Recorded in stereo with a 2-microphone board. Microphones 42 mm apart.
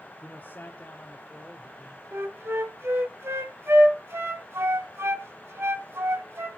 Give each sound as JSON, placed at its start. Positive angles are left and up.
{"t": 0.2, "sound": "a man speaking", "side_deg": 45, "distance_m": 1.3}
{"t": 2.1, "sound": "a flute", "side_deg": -75, "distance_m": 1.8}